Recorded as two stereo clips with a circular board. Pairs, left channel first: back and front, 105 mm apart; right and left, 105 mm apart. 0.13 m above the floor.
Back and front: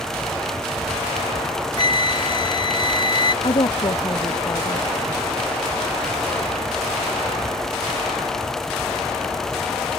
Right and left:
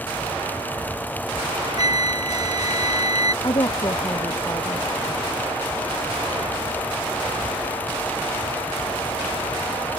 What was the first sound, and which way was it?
A flute, 140° left.